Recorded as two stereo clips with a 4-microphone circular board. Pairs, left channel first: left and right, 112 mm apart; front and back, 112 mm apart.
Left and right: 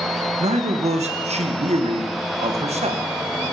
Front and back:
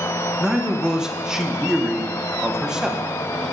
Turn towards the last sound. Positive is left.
turn(degrees=-95)